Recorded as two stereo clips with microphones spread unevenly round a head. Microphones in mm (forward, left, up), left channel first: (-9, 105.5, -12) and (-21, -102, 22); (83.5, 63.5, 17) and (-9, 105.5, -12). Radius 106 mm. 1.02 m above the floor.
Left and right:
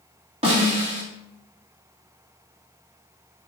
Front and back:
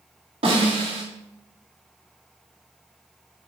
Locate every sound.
0.4 s a snare drum: 160° right, 3 m